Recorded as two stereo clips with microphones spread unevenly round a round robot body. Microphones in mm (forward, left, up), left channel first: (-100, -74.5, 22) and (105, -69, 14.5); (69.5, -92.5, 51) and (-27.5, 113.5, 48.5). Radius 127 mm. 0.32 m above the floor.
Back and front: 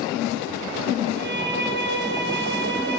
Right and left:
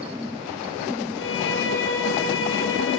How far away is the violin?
About 7 m.